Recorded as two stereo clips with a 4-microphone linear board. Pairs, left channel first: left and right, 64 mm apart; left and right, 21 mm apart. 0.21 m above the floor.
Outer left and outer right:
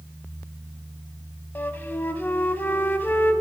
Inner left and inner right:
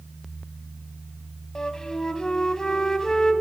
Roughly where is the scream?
I don't hear a scream.